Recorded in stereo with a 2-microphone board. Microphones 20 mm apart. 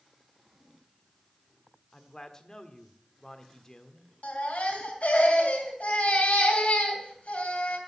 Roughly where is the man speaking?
Left.